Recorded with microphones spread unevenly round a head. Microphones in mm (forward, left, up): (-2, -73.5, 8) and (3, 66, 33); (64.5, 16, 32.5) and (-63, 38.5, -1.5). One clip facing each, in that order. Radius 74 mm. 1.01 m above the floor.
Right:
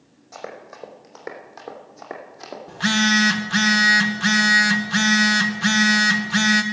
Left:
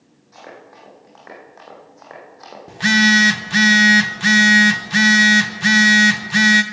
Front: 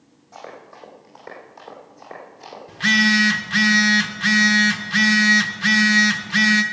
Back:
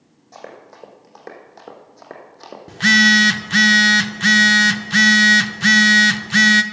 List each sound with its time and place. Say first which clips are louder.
0.3 s running footsteps: right 3 dB, back 1 dB; 130° right, 3 m; by 2.6 s 155° right, 3 m
2.7 s a phone buzzing: left 4 dB, back 3 dB; 140° left, 0.7 m